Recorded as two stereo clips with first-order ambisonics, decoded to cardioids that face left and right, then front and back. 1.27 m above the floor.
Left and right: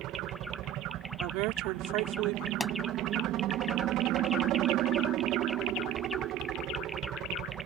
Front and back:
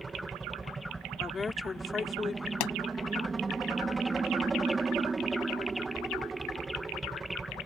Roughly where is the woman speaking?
Right.